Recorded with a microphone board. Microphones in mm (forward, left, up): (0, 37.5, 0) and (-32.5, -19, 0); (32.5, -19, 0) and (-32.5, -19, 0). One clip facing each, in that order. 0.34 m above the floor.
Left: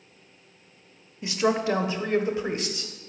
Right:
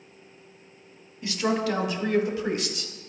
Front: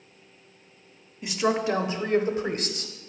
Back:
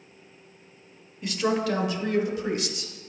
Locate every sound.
1.2 s a woman speaking: 70° left, 0.8 m; by 2.9 s 10° left, 1.2 m